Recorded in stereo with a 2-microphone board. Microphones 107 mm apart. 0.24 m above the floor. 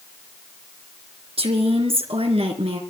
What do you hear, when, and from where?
1.4 s a woman speaking: 70° right (ahead or behind), 3 m